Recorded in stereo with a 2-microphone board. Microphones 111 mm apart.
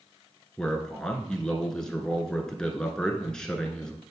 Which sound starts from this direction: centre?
A man speaking, at 0.6 s.